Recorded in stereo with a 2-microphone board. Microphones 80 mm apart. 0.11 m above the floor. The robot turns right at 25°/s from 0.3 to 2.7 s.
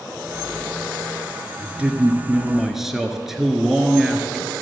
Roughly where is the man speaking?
Centre.